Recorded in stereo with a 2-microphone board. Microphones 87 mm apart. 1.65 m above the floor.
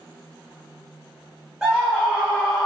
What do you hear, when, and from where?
1.6 s a scream: 5° right (ahead or behind), 0.8 m; by 2.7 s 25° left (ahead or behind), 1.4 m